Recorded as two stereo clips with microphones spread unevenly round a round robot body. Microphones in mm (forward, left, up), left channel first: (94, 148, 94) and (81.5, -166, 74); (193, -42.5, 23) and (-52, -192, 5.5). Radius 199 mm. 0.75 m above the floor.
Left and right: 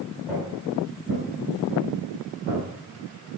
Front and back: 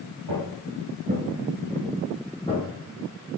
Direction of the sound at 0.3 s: Straight behind.